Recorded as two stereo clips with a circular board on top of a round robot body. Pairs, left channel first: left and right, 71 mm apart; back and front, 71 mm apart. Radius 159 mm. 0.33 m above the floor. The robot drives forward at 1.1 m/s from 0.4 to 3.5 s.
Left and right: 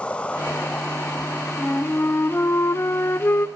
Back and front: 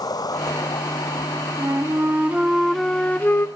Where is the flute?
30° left, 1.9 m; by 3.5 s 135° left, 1.7 m.